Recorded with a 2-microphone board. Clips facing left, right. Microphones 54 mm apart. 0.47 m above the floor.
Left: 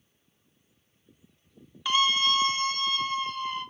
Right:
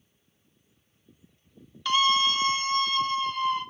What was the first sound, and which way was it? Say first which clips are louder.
A scream: right 2 dB; 15° left (ahead or behind).